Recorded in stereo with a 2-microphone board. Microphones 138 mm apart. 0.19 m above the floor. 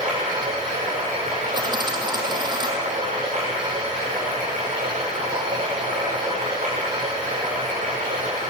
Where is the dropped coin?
30° right (ahead or behind), 3 m.